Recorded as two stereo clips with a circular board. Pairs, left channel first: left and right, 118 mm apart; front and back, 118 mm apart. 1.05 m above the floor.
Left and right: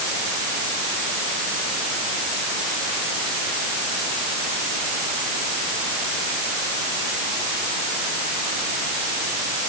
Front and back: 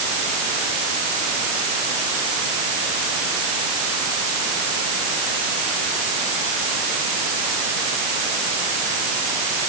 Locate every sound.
Only background noise.